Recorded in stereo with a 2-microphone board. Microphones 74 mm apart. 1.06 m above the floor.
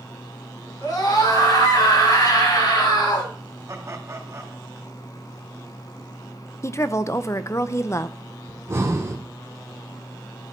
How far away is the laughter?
About 3.5 m.